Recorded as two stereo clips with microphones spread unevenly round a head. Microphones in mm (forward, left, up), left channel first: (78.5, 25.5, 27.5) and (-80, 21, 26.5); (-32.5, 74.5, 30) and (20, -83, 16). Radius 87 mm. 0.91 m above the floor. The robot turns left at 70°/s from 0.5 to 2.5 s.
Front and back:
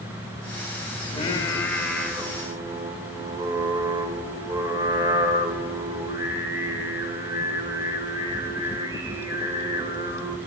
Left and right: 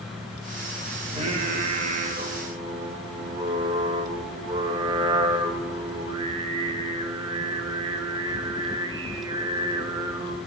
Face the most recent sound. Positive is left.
turn(degrees=-120)